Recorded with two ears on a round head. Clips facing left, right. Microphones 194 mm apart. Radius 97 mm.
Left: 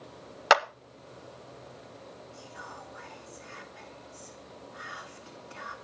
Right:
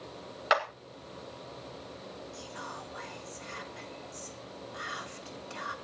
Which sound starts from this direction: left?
A clap, at 0.5 s.